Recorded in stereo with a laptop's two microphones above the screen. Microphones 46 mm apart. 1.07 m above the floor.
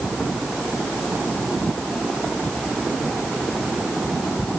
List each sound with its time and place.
Only background noise.